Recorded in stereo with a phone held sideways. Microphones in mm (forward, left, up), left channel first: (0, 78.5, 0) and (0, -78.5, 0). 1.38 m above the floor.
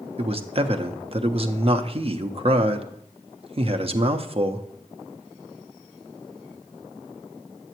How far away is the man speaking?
About 0.6 m.